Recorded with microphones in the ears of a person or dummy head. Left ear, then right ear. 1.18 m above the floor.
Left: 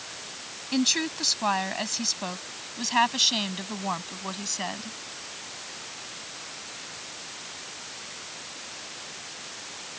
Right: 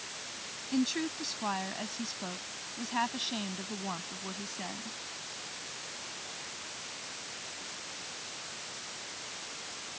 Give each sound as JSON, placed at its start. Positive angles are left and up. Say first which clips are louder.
{"t": 0.7, "sound": "a woman speaking", "louder": "left 8 dB", "side_deg": 40}